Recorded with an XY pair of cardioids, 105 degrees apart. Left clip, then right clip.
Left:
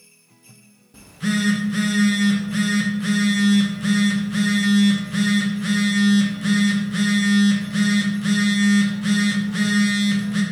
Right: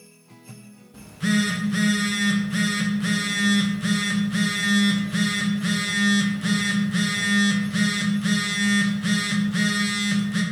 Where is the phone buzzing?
5° right, 0.7 m.